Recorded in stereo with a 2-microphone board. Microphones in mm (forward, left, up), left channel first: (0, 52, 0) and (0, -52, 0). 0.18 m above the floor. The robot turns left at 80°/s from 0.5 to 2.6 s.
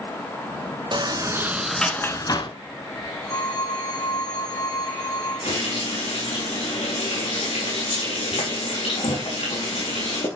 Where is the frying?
85° left, 5.5 m.